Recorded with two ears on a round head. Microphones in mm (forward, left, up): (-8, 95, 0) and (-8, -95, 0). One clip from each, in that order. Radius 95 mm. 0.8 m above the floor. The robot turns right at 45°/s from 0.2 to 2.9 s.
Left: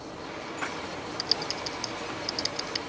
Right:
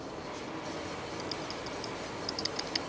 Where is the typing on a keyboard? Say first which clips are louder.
Left 13 dB; 70° left (ahead or behind); by 2.8 s centre (ahead or behind).